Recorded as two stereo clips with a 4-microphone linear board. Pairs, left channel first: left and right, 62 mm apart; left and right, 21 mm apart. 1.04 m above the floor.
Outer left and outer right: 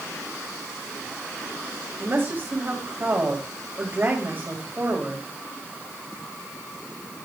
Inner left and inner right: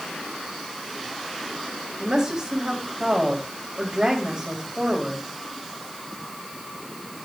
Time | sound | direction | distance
2.0 | a woman speaking | 40° right (ahead or behind) | 4 m